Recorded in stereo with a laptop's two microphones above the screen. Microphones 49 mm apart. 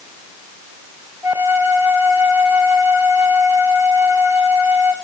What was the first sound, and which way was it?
A flute, 55° right (ahead or behind).